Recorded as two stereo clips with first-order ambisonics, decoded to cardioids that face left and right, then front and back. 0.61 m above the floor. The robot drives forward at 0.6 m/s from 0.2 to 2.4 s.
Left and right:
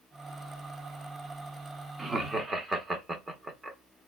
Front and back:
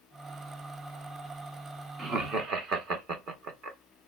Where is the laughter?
150° right, 0.8 m; by 3.8 s 165° right, 0.9 m.